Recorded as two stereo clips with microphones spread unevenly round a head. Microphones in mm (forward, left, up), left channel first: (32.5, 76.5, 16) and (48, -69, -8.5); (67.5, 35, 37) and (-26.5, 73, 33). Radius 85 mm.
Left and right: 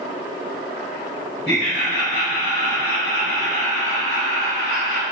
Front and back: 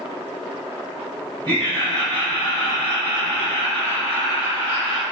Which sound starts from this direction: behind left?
Laughter, at 1.4 s.